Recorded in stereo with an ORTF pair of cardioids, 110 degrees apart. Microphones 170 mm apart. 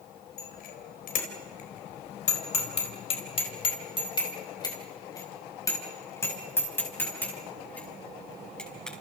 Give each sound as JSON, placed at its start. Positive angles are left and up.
{"t": 0.4, "sound": "a bicycle bell", "azimuth_deg": 60, "distance_m": 4.0}